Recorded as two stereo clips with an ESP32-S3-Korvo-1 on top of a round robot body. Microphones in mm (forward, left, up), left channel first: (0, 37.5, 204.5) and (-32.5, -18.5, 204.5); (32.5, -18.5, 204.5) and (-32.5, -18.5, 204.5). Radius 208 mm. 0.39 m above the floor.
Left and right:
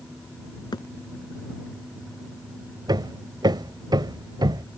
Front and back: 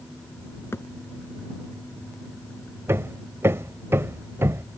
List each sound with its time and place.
0.7 s a thud: 55° left
2.9 s hammering: 125° right